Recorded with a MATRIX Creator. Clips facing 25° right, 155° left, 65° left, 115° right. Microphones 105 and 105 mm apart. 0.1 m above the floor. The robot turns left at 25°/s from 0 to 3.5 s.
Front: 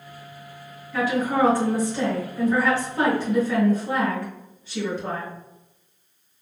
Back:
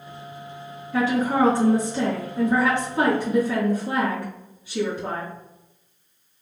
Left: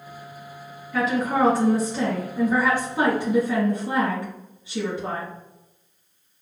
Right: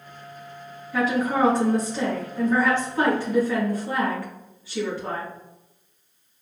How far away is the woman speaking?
About 1.6 m.